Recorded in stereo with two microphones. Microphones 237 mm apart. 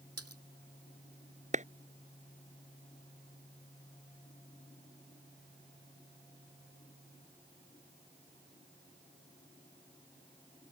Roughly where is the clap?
Right.